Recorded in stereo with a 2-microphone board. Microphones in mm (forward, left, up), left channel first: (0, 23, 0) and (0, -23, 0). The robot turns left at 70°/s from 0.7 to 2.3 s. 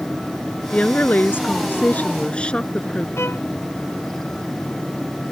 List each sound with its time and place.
0.7 s a woman speaking: 145° left; by 3.1 s 35° left
3.2 s a violin: 70° left (ahead or behind)